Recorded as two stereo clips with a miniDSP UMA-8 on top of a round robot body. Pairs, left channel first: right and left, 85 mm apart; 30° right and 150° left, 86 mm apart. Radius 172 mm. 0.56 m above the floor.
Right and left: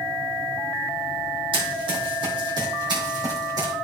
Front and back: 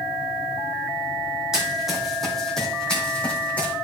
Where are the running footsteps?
65° left, 2 m; by 3.7 s 45° left, 2.5 m.